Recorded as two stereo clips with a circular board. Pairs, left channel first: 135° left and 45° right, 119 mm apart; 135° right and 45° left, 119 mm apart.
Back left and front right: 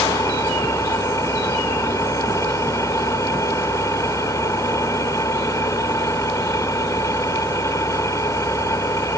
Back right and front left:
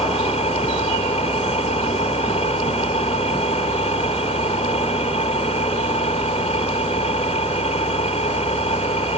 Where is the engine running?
160° right.